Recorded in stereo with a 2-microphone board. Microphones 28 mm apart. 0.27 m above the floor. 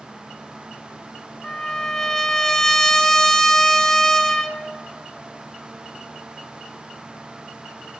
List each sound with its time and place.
1.4 s a trumpet: 20° left (ahead or behind), 1.0 m